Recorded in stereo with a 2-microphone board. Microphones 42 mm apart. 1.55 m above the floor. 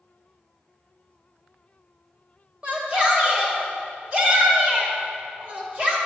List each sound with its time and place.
2.6 s a shout: 35° right (ahead or behind), 2 m